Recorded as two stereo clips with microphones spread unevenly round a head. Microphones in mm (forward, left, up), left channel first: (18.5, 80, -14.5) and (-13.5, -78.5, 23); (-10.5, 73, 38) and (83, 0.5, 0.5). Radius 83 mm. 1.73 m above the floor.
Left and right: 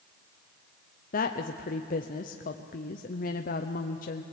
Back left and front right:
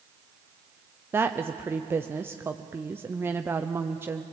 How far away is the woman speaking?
About 0.8 m.